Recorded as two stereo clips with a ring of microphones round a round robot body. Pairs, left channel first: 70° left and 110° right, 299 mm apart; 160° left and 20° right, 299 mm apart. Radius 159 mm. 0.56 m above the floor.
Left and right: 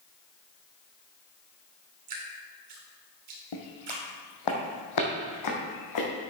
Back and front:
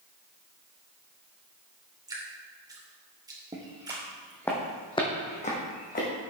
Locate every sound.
2.1 s dripping: 100° right, 2.5 m
3.5 s footsteps: 50° left, 1.8 m; by 6.1 s 95° left, 3 m